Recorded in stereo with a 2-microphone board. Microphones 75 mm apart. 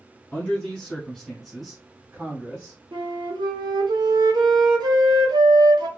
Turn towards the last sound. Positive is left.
turn(degrees=-75)  # may be behind; listen again after turning